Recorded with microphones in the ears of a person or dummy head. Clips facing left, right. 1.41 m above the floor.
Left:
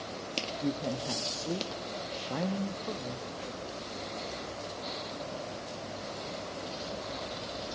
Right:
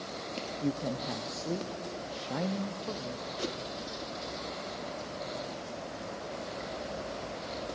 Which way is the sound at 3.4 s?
55° right (ahead or behind).